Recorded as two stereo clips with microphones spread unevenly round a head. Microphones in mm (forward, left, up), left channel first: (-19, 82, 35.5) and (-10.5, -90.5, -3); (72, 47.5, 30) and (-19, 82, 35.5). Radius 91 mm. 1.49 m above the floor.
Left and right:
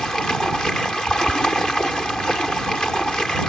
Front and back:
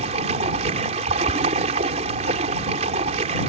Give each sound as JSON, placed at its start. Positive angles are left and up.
{"t": 0.0, "sound": "running water", "azimuth_deg": 175}